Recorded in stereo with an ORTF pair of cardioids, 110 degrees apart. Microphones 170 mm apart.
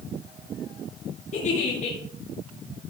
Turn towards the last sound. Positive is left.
turn(degrees=40)